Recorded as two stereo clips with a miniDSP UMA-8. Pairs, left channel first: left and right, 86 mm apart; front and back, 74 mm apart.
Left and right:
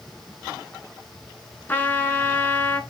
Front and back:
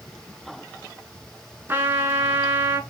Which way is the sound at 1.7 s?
145° left.